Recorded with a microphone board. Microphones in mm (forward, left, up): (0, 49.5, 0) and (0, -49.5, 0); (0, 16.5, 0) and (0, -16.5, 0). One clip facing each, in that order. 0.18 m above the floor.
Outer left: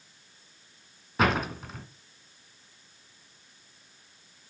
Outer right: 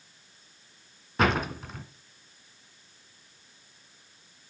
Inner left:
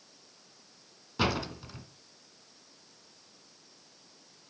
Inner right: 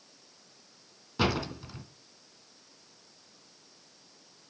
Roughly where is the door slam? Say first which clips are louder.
Even, inner right 1 dB; centre.